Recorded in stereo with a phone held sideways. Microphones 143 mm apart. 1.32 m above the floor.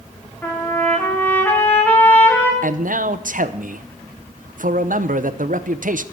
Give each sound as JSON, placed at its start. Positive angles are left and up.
{"t": 0.4, "sound": "a trumpet", "side_deg": 15, "distance_m": 2.0}
{"t": 2.6, "sound": "a man speaking", "side_deg": -75, "distance_m": 0.8}